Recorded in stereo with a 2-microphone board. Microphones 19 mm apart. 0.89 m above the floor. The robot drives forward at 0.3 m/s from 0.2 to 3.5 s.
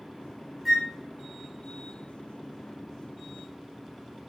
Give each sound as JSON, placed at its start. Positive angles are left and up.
{"t": 0.7, "sound": "a flute", "side_deg": 0, "distance_m": 1.7}